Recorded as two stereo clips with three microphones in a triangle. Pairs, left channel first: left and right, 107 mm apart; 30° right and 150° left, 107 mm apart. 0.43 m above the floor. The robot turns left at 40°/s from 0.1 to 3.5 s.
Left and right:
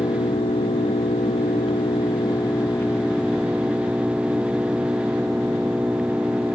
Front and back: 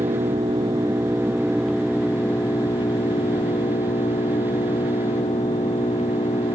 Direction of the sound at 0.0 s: 130° left.